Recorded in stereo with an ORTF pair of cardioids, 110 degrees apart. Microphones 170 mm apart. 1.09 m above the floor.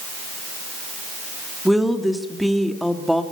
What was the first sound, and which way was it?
A woman speaking, straight ahead.